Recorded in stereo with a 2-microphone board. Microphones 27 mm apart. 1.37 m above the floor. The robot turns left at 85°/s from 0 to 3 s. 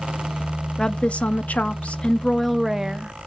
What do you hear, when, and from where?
0.8 s a woman speaking: 150° left, 0.7 m; by 3.1 s 40° right, 0.7 m